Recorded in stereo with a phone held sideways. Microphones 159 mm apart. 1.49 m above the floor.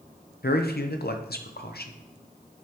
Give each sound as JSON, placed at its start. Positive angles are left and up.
{"t": 0.4, "sound": "a man speaking", "side_deg": 85, "distance_m": 0.8}